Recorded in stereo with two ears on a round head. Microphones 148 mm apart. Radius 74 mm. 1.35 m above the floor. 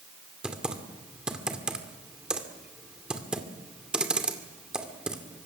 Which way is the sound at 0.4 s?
5° right (ahead or behind).